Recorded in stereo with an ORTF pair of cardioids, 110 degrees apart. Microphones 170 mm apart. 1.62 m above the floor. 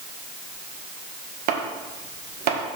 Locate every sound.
1.5 s chopping: 65° right, 1.7 m